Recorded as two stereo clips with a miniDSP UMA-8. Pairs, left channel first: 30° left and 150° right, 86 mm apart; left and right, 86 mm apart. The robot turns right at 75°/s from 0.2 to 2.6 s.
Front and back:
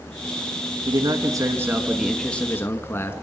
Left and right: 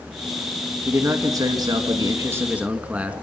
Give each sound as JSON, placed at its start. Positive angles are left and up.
{"t": 0.9, "sound": "a man speaking", "azimuth_deg": -155, "distance_m": 2.5}